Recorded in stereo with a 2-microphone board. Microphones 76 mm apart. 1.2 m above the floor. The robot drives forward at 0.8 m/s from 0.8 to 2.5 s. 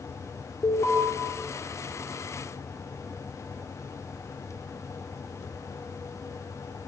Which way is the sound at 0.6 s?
70° left (ahead or behind).